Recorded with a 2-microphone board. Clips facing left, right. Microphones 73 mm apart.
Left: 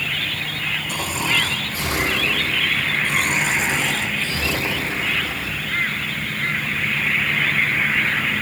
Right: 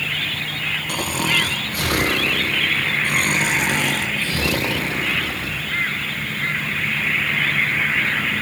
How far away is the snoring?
About 3 m.